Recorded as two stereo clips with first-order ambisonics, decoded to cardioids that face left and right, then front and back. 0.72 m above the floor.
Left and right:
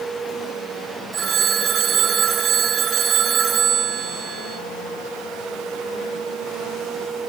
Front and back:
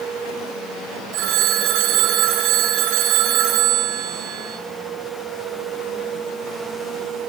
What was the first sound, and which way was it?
A phone ringing, 155° right.